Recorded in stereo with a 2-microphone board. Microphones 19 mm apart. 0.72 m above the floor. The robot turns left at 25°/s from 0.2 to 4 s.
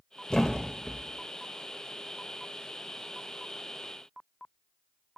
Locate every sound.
0.3 s a thud: 35° left (ahead or behind), 0.6 m; by 1.0 s 50° left (ahead or behind), 0.6 m